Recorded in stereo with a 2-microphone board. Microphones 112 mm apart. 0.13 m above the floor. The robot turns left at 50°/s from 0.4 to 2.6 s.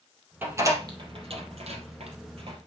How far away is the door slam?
About 3 m.